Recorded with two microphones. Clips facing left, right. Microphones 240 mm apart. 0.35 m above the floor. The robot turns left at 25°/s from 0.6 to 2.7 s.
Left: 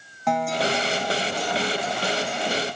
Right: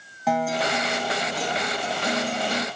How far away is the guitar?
About 1.4 m.